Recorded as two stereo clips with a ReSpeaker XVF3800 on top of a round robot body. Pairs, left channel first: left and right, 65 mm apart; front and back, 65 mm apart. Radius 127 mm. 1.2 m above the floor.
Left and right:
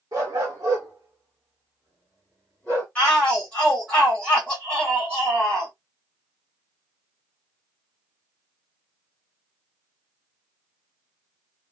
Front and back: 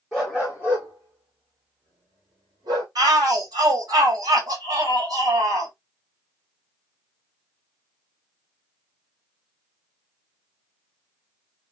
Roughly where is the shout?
Behind.